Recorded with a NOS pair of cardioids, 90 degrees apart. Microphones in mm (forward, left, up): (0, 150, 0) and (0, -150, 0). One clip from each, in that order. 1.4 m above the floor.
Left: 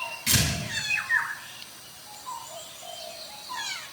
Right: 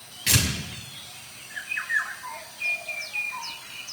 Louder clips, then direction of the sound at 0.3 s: Right 2 dB; 50° right.